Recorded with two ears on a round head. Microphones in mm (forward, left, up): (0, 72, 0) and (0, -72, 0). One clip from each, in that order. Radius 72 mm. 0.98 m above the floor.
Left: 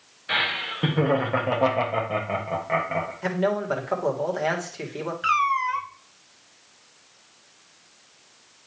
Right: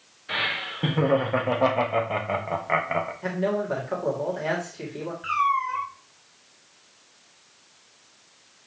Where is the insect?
I don't hear an insect.